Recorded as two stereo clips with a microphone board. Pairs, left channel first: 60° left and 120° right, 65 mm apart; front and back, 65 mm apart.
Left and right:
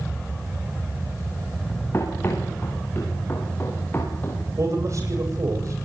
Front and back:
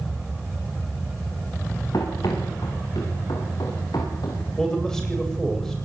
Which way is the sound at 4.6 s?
80° right.